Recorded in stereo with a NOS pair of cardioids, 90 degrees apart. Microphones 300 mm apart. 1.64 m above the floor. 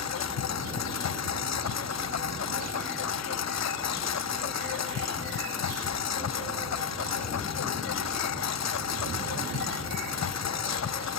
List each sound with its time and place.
0.0 s a lawn mower: 60° left